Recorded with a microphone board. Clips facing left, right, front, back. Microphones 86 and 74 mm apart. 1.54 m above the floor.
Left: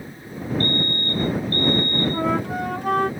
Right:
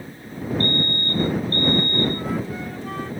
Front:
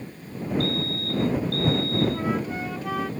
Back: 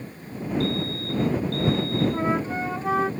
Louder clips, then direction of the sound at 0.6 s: Even, back 1 dB; 40° right.